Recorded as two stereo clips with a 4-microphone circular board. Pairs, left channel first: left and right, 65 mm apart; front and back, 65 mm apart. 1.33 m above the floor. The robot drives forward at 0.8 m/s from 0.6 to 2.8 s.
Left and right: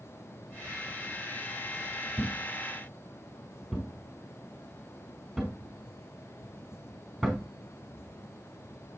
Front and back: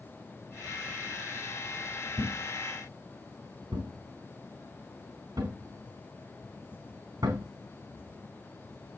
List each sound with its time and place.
2.2 s a thud: straight behind, 3.5 m